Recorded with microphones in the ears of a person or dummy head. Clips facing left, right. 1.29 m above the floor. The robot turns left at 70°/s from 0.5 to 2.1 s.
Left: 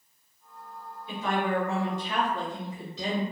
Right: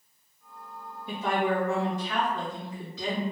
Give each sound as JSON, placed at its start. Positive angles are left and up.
{"t": 1.1, "sound": "a woman speaking", "azimuth_deg": -135, "distance_m": 1.6}